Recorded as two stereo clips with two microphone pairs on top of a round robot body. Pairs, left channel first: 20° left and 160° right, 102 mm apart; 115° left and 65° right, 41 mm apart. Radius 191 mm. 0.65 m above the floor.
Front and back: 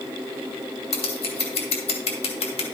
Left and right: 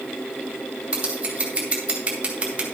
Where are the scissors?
Straight ahead, 2.5 m.